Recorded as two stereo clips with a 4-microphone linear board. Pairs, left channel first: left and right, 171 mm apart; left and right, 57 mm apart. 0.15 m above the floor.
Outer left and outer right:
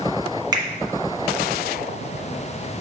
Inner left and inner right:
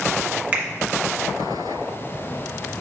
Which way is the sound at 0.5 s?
25° right (ahead or behind).